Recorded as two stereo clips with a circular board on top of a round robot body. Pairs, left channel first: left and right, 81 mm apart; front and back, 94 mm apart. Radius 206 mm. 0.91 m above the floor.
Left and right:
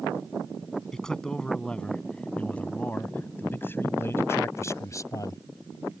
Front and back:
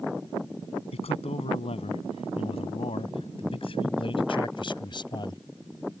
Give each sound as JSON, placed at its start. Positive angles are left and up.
{"t": 0.9, "sound": "a man speaking", "azimuth_deg": 5}